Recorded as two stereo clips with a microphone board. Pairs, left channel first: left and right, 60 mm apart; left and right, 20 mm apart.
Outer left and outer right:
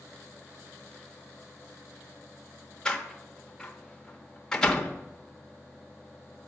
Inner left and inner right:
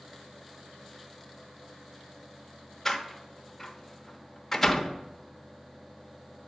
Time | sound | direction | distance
2.9 | a door slam | 10° left (ahead or behind) | 0.8 m